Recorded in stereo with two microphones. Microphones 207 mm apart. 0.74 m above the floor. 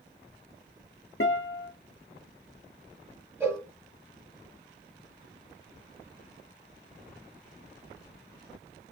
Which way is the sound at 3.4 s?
10° right (ahead or behind).